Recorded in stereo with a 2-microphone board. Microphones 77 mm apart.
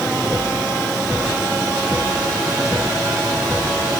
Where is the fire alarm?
I don't hear a fire alarm.